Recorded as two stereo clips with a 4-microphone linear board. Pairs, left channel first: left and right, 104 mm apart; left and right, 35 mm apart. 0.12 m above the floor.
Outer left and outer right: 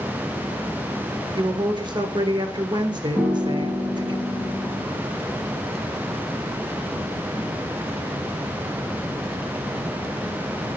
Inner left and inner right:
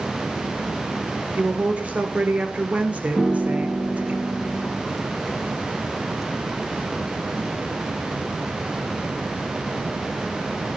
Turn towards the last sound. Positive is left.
turn(degrees=-15)  # may be behind; listen again after turning